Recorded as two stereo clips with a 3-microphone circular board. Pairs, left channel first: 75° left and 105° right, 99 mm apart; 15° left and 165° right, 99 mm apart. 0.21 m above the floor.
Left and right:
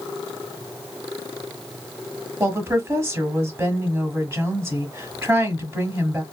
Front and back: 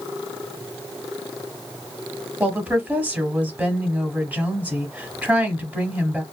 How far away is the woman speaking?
About 1.0 m.